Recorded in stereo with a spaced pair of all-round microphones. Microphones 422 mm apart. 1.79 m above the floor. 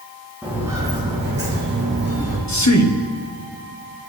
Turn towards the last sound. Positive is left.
turn(degrees=40)  # may be behind; listen again after turning